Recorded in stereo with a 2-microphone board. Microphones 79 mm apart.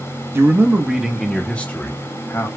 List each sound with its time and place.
0.3 s a man speaking: 30° right (ahead or behind), 0.8 m; by 2.5 s 35° left (ahead or behind), 1.2 m